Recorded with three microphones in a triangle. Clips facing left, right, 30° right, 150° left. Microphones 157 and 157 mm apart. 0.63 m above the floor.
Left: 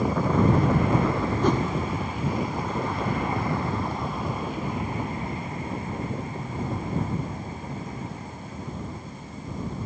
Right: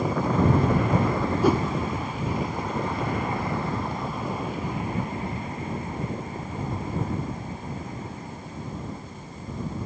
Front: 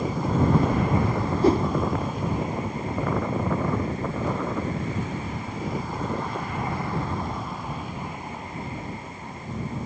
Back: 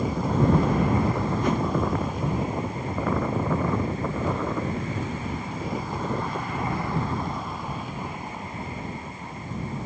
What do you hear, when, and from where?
1.4 s a whoosh: 15° right